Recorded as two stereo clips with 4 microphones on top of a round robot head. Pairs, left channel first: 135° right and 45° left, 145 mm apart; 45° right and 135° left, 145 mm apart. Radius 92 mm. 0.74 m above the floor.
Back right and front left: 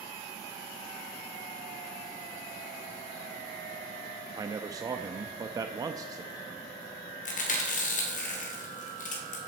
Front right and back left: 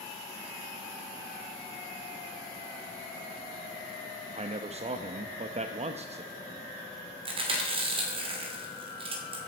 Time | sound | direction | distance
4.4 | a man speaking | 105° left | 0.7 m
7.2 | chewing | 170° right | 2.5 m